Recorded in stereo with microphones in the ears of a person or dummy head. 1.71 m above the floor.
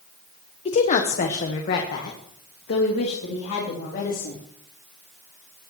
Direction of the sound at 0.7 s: 30° left (ahead or behind).